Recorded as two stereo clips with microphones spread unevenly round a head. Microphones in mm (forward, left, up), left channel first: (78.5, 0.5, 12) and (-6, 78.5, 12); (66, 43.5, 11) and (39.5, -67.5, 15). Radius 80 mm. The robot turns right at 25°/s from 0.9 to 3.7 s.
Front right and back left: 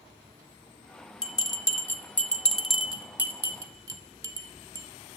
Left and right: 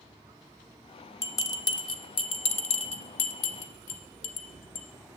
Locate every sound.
1.2 s a bell: 10° left, 0.7 m; by 4.9 s 70° left, 0.7 m